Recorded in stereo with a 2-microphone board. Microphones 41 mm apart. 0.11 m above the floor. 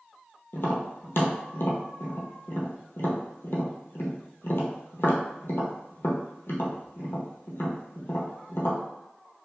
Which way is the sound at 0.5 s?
65° left (ahead or behind).